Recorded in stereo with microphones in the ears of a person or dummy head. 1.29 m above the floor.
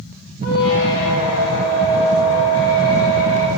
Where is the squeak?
65° left (ahead or behind), 0.6 m.